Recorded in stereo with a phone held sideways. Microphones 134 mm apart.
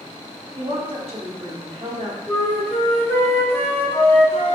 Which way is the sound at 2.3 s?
15° left (ahead or behind).